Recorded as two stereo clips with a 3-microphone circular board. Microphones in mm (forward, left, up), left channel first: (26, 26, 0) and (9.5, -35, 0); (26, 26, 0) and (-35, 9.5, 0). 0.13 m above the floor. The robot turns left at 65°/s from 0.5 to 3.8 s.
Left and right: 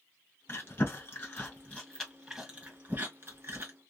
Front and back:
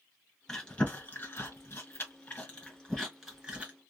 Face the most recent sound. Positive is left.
turn(degrees=-125)